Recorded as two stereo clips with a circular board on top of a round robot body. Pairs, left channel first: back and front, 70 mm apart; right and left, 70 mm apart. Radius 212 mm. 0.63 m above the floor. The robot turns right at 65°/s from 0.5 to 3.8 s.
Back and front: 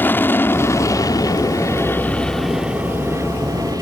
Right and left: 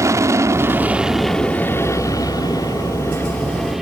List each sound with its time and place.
0.0 s an aircraft: 125° left; by 3.8 s 5° left